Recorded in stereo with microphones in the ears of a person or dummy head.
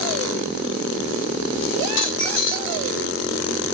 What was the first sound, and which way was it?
A dropped coin, 65° left (ahead or behind).